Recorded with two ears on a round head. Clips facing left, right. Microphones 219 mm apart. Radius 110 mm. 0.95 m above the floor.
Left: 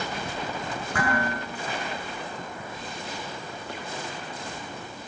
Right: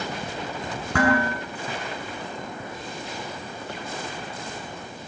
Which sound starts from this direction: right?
Dishes clattering, at 0.9 s.